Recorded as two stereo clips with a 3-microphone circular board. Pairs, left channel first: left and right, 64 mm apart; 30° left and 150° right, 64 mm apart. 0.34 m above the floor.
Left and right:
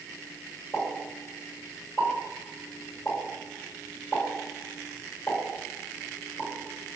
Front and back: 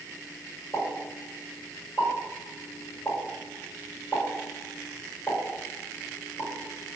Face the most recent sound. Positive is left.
turn(degrees=70)